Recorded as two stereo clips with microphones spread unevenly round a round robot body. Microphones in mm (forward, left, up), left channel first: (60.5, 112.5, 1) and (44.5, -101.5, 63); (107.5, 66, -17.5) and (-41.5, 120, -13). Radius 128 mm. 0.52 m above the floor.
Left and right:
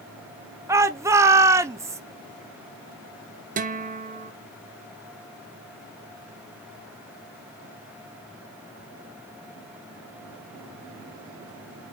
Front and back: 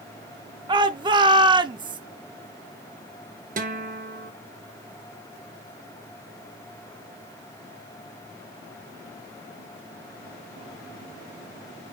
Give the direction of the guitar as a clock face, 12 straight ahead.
5 o'clock.